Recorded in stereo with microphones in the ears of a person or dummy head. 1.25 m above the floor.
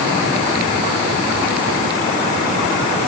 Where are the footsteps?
No footsteps in this recording.